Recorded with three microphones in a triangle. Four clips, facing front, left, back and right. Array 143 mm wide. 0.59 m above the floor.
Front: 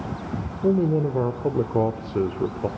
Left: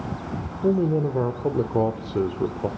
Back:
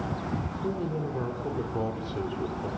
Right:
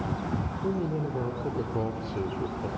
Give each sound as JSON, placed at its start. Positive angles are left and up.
{"t": 0.6, "sound": "a man speaking", "azimuth_deg": 40, "distance_m": 1.3}